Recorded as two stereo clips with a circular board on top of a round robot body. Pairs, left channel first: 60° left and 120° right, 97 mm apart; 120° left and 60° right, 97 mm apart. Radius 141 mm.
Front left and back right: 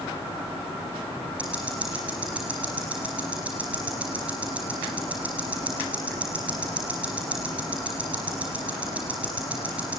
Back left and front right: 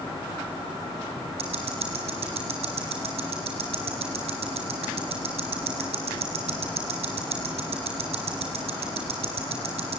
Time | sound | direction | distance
1.4 | ticking | 45° right | 3 m